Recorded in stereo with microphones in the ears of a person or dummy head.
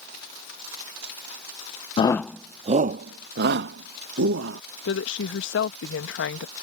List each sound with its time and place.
2.0 s a shout: 30° left (ahead or behind); by 4.6 s 70° right (ahead or behind)
4.9 s a woman speaking: 65° left (ahead or behind)